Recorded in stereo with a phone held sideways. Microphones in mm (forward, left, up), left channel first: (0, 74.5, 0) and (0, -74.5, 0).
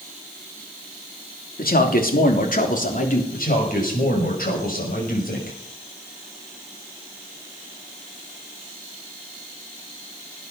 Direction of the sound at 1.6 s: 75° left (ahead or behind).